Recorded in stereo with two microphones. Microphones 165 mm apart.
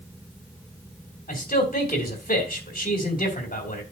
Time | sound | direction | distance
1.3 | a man speaking | 60° left (ahead or behind) | 3 m